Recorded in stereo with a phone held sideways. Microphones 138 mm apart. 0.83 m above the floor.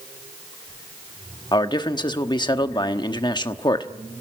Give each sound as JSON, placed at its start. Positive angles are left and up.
{"t": 1.5, "sound": "a man speaking", "side_deg": 35, "distance_m": 1.2}